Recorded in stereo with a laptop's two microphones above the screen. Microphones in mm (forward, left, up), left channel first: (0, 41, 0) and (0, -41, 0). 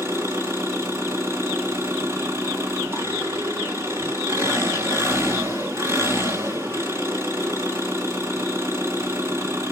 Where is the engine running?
35° right (ahead or behind), 3.5 m.